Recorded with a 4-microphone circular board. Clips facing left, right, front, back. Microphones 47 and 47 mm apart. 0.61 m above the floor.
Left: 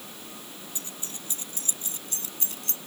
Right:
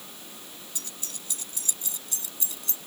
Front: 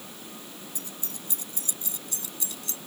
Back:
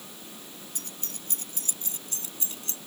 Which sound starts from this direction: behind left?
Keys jangling, at 0.8 s.